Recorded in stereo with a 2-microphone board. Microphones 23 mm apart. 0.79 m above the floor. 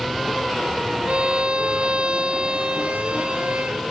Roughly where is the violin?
Right.